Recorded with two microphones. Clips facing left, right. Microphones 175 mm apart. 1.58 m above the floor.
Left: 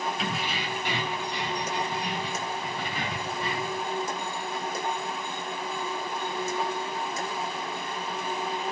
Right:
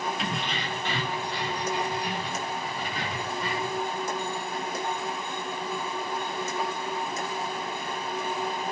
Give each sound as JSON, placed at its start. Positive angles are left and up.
{"t": 0.2, "sound": "keys jangling", "side_deg": 0, "distance_m": 0.7}